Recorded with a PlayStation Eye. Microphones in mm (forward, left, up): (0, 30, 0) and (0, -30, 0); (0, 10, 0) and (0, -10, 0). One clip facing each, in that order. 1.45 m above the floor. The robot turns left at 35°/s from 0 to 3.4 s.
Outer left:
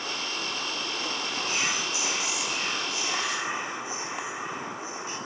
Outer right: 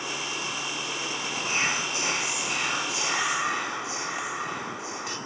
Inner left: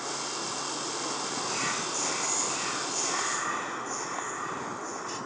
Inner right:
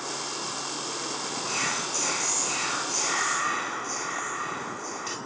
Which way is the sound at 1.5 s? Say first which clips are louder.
Outer right 3 dB, inner right 4 dB; 30° right.